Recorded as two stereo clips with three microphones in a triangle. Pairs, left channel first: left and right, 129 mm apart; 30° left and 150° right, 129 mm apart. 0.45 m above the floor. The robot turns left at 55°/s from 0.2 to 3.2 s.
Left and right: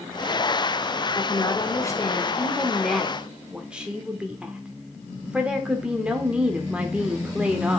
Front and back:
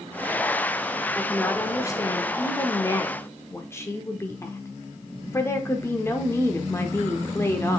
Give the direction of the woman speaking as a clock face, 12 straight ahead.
9 o'clock.